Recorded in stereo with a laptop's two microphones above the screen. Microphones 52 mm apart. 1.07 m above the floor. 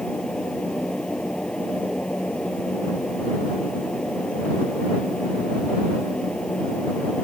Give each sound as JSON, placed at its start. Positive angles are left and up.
{"t": 0.0, "sound": "a fan", "side_deg": 20}